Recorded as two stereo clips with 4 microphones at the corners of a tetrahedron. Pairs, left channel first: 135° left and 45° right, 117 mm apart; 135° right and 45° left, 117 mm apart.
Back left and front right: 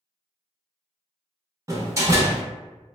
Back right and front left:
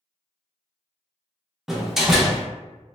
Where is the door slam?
35° right, 0.5 m.